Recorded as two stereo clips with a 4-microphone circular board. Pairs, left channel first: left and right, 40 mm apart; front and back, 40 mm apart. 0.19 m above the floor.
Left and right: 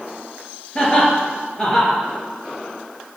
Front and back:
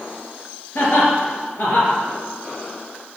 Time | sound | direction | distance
0.8 | laughter | 20° left | 3.5 m